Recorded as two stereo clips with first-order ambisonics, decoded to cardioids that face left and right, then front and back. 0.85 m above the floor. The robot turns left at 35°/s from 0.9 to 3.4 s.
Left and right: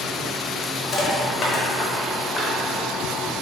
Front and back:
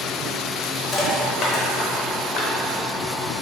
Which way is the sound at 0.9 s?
60° left.